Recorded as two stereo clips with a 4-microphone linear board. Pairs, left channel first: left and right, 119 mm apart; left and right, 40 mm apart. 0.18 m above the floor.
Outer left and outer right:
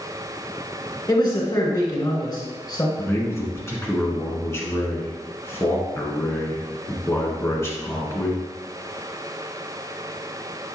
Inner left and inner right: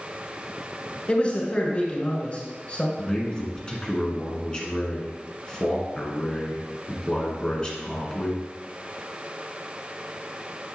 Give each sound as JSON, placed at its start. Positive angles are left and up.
{"t": 1.1, "sound": "a man speaking", "side_deg": 35, "distance_m": 2.0}
{"t": 3.0, "sound": "a man speaking", "side_deg": 25, "distance_m": 1.8}